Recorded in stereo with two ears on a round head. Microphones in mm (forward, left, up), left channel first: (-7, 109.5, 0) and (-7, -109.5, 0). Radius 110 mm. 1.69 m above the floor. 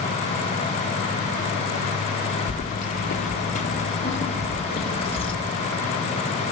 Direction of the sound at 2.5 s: 35° left (ahead or behind).